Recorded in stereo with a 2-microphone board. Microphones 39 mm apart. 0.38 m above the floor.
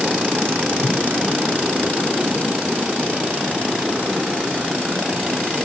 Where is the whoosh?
20° right (ahead or behind), 5 m.